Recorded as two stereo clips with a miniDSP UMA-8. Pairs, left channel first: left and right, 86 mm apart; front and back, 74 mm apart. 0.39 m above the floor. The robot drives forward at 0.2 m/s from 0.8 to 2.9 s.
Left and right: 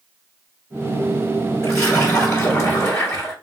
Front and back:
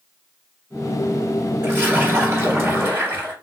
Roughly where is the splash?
Behind left.